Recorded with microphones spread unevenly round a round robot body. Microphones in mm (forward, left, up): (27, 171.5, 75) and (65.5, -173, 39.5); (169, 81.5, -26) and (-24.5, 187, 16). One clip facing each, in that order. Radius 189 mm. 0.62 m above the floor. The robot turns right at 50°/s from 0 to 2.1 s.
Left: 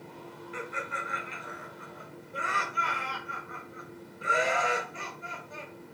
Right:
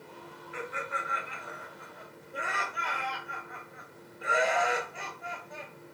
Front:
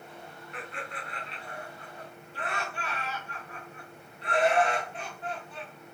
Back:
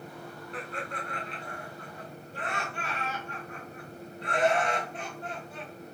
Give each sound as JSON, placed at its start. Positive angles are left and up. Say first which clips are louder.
{"t": 0.5, "sound": "laughter", "louder": "right 1 dB, back 3 dB", "azimuth_deg": 100, "distance_m": 0.6}